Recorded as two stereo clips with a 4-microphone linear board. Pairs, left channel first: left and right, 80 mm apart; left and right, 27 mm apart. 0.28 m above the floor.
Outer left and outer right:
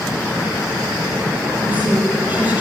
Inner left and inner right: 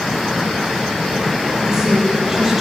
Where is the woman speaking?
20° right (ahead or behind), 8 m.